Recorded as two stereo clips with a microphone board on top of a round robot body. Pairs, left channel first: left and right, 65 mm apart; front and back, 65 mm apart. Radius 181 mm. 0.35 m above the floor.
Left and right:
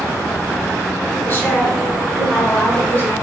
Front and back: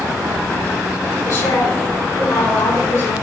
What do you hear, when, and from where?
1.2 s a woman speaking: 30° left, 6 m